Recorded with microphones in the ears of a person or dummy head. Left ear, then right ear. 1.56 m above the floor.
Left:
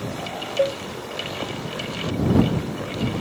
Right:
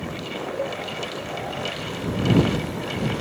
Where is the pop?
I don't hear a pop.